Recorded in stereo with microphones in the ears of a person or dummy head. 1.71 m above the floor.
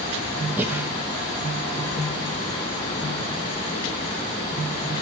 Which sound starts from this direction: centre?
Breathing, at 0.6 s.